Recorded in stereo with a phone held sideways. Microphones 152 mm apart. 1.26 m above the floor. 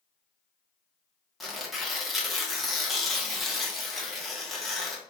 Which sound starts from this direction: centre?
Tearing paper, at 1.4 s.